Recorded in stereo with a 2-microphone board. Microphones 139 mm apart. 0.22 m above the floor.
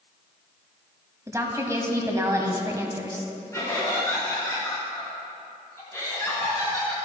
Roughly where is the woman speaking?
Right.